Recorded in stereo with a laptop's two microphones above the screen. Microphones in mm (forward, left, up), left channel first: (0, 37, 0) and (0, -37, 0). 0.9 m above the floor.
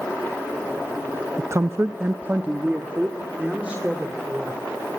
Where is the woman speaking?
40° right (ahead or behind), 0.5 m; by 4.6 s 15° right (ahead or behind), 3.5 m.